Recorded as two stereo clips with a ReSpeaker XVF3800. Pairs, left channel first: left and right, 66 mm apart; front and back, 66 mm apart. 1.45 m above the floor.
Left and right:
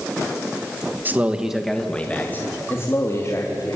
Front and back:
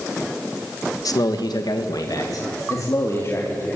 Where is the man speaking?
30° right, 1.9 m; by 3.8 s 50° left, 4.5 m.